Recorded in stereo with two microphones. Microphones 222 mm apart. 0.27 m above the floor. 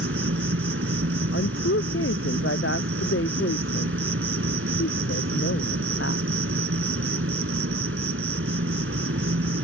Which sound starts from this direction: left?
A woman speaking, at 1.3 s.